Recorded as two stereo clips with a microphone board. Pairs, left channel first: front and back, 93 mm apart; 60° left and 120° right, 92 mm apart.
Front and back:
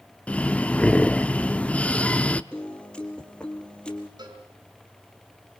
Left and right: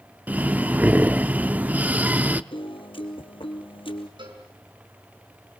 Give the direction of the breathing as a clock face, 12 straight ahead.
2 o'clock.